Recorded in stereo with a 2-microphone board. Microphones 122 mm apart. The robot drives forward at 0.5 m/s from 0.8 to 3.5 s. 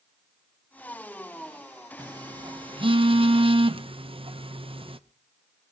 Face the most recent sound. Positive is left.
turn(degrees=-45)  # may be behind; listen again after turning